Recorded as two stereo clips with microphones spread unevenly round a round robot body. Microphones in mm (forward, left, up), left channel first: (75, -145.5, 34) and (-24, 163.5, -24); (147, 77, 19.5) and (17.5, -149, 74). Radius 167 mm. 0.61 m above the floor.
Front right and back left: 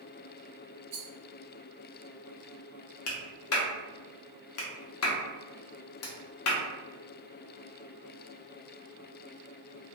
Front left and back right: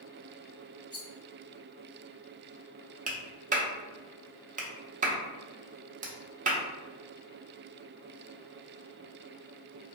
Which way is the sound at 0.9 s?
155° left.